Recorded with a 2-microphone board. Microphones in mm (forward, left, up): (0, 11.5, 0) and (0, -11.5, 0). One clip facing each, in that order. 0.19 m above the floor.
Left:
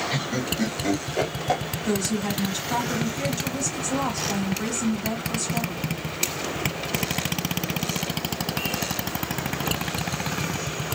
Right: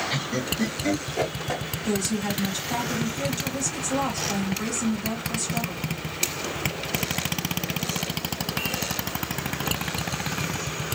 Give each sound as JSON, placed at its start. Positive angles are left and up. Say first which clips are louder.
{"t": 0.1, "sound": "laughter", "louder": "left 1 dB", "side_deg": 5, "distance_m": 1.6}
{"t": 1.9, "sound": "a woman speaking", "louder": "left 1 dB", "side_deg": 15, "distance_m": 1.3}